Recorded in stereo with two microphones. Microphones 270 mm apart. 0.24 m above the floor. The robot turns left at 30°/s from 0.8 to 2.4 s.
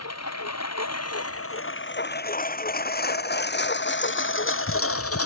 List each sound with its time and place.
0.0 s a lawn mower: 70° left (ahead or behind); by 5.3 s 65° left (ahead or behind)